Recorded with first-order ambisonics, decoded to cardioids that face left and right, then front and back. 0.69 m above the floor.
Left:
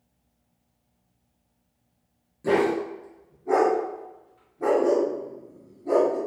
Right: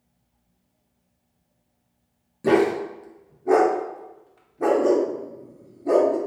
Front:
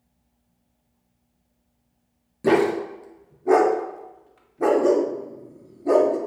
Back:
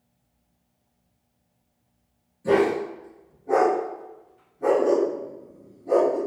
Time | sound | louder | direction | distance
2.4 | a dog barking | right 3 dB, front 1 dB | 25° right | 0.5 m